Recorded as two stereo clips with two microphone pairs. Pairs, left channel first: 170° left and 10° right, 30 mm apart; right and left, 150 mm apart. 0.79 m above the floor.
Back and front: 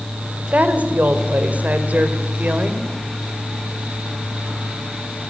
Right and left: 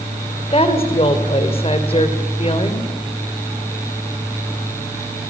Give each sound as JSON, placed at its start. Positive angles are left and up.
{"t": 0.5, "sound": "a woman speaking", "azimuth_deg": -40, "distance_m": 2.5}